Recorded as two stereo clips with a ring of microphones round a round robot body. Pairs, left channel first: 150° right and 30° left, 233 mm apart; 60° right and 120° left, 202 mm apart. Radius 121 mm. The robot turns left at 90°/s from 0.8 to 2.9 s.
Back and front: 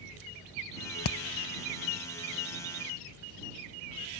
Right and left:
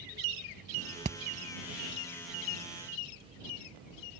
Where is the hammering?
175° right; by 1.2 s 170° left.